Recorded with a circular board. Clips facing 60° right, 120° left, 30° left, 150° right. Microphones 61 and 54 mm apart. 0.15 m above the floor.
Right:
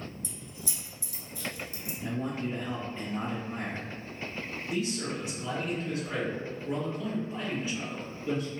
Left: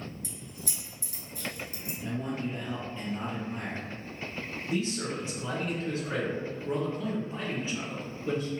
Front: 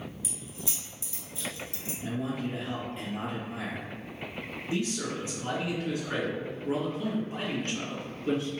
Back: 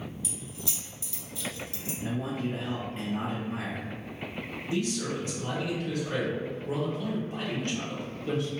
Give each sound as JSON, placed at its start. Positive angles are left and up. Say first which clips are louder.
{"t": 0.2, "sound": "keys jangling", "louder": "even, back 1 dB", "azimuth_deg": 90, "distance_m": 1.2}
{"t": 2.0, "sound": "a man speaking", "louder": "right 1 dB, back 1 dB", "azimuth_deg": -95, "distance_m": 1.4}
{"t": 4.7, "sound": "a man speaking", "louder": "left 1 dB, back 1 dB", "azimuth_deg": 80, "distance_m": 2.0}